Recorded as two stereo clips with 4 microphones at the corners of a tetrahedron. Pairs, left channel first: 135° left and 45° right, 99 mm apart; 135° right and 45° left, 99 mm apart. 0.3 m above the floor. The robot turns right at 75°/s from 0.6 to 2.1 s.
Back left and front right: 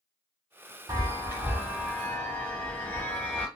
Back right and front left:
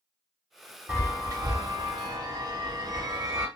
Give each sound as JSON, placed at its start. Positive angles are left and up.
{"t": 0.9, "sound": "a chime", "azimuth_deg": -25, "distance_m": 1.0}